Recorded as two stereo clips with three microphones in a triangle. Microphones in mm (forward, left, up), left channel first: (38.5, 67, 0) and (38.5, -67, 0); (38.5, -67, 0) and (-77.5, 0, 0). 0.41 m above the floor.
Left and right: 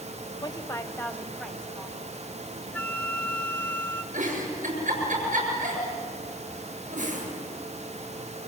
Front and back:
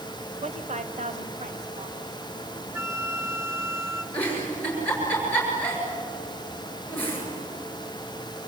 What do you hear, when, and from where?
0.4 s a woman speaking: 135° left, 1.5 m; by 2.0 s 175° right, 3 m
2.7 s a flute: 135° left, 0.8 m
4.1 s a giggle: 105° right, 7.5 m